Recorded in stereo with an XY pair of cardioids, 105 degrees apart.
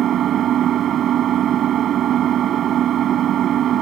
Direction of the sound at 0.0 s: 65° right.